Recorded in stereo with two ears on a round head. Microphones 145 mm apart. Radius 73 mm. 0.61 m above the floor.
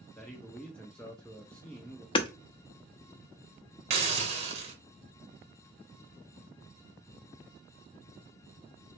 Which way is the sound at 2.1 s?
30° left (ahead or behind).